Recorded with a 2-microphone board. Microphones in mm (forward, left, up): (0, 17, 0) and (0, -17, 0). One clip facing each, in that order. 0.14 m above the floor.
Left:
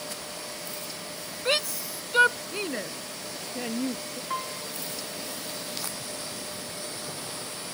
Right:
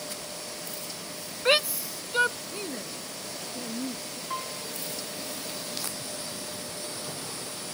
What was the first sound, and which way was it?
A shout, 20° right (ahead or behind).